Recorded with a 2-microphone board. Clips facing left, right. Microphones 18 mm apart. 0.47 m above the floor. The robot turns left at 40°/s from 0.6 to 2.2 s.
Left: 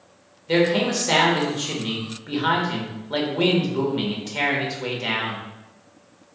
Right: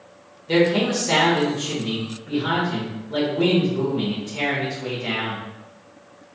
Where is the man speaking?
175° left, 1.2 m; by 5.4 s 110° left, 1.2 m.